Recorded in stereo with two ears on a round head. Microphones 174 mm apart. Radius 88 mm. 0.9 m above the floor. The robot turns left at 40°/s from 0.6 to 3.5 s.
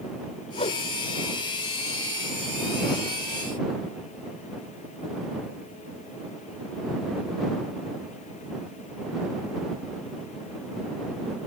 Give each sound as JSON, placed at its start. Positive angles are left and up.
{"t": 0.5, "sound": "a whoosh", "side_deg": 35}